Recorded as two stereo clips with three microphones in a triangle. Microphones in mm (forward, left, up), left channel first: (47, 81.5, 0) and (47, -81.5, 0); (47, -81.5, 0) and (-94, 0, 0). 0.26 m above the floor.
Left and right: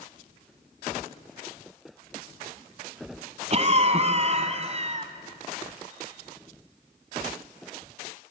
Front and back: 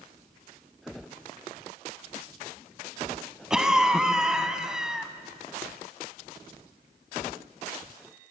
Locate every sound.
3.5 s a cough: 125° right, 2 m